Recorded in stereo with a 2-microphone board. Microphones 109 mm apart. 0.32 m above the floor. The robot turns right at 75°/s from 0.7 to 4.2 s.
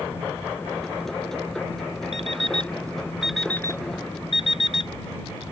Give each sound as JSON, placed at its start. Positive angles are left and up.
{"t": 2.1, "sound": "an alarm clock", "side_deg": -75}